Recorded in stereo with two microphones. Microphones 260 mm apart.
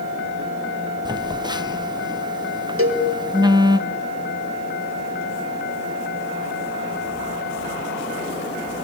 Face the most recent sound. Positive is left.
turn(degrees=-65)  # may be behind; listen again after turning